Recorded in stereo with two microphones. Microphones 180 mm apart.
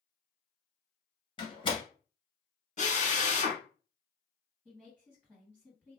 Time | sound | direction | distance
1.4 | a door slam | 25° left (ahead or behind) | 0.8 m
2.8 | a drill | 40° left (ahead or behind) | 0.7 m
4.7 | a woman speaking | 10° right (ahead or behind) | 2.0 m